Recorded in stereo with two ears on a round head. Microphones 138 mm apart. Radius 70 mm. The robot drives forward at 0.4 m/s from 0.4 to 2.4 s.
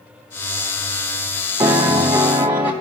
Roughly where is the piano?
Centre.